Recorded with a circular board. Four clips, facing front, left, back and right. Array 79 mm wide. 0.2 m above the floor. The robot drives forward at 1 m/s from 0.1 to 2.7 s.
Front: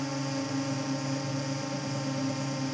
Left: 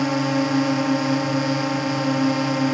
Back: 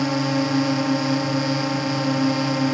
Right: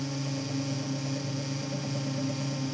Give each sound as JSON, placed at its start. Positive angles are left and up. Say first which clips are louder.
{"t": 0.0, "sound": "a drone", "louder": "left 14 dB, back 11 dB", "azimuth_deg": 125}